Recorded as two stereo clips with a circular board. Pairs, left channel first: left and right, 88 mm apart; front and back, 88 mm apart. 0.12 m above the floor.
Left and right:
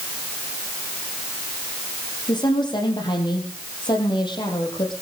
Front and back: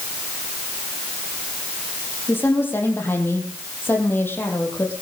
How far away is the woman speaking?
About 5.5 m.